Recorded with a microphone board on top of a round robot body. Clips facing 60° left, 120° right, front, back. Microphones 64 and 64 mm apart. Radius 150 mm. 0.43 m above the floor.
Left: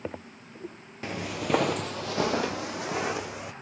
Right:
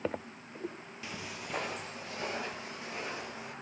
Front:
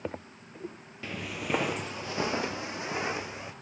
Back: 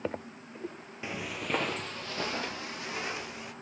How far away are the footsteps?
About 0.6 m.